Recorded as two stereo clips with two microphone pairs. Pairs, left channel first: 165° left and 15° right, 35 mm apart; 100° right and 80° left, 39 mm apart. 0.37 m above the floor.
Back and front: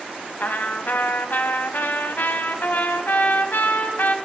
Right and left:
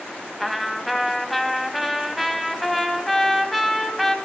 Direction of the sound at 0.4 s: 170° left.